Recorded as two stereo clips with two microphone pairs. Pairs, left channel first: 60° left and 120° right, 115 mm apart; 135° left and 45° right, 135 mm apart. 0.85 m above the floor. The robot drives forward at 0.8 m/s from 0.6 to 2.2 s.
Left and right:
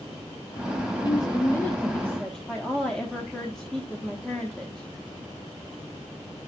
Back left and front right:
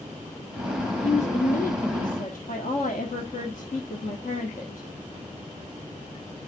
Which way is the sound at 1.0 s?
105° left.